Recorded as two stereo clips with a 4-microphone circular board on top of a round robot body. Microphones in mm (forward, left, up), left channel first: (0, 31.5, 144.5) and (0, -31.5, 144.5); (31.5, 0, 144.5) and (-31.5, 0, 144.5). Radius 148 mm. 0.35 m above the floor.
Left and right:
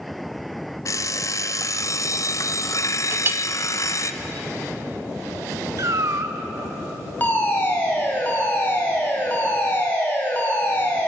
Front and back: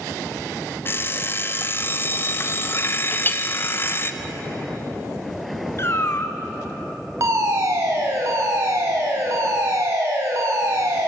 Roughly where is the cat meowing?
Ahead right.